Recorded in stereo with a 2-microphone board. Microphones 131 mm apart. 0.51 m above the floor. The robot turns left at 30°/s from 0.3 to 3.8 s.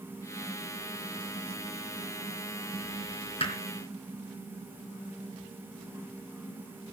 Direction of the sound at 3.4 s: 45° left (ahead or behind).